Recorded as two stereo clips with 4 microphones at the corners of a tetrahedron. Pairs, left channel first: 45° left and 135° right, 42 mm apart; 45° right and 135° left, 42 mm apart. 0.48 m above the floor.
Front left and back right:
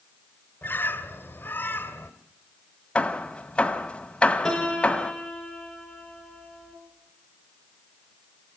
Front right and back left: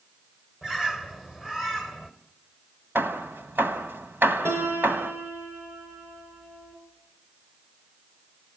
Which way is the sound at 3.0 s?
105° left.